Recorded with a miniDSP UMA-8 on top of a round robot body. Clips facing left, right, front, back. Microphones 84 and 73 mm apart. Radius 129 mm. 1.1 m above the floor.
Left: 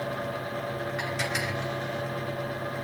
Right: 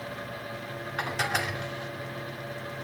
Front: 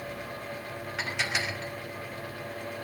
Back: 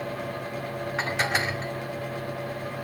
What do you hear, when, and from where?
1.0 s dishes clattering: 130° right, 2 m